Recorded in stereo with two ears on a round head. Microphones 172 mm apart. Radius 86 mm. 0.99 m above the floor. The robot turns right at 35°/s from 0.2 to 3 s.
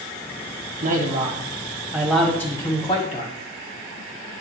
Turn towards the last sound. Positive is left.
turn(degrees=25)